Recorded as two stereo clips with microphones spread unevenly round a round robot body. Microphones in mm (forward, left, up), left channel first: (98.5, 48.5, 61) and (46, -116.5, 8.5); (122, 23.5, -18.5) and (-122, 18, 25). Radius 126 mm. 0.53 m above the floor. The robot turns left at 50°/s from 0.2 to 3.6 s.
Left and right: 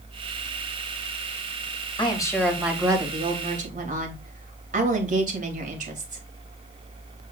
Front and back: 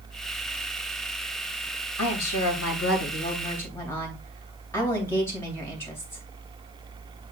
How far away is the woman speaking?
About 3 m.